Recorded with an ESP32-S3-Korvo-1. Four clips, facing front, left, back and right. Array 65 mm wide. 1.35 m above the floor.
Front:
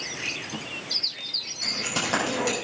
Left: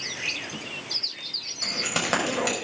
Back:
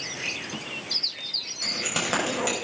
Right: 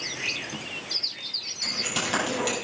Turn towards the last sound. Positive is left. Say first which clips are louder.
# left 2 dB, even
turn(degrees=100)